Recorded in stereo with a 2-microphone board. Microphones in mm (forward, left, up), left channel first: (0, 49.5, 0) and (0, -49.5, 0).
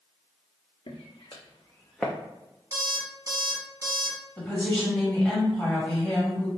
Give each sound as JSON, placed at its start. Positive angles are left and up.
{"t": 0.9, "sound": "footsteps", "side_deg": 70, "distance_m": 1.2}
{"t": 2.7, "sound": "an alarm clock", "side_deg": -40, "distance_m": 1.3}
{"t": 4.4, "sound": "a woman speaking", "side_deg": 15, "distance_m": 2.0}